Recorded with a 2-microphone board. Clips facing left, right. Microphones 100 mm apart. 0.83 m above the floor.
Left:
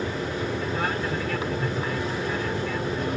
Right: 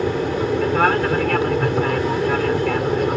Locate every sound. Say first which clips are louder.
0.0 s an aircraft: right 8 dB; 65° right (ahead or behind)